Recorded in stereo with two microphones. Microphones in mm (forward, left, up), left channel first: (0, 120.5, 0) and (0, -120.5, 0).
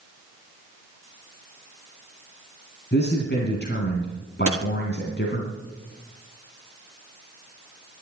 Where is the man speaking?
45° left (ahead or behind), 2.5 m.